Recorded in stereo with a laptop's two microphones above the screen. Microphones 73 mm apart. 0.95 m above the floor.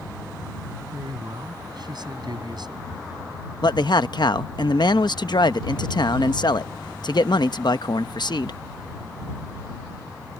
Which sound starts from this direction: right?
A man speaking, at 0.9 s.